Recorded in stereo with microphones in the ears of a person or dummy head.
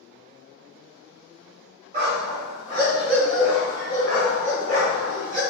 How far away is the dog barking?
About 1.9 m.